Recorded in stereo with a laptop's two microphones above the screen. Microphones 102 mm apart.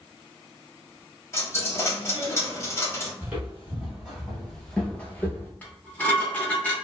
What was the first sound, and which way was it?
A dropped coin, 30° left (ahead or behind).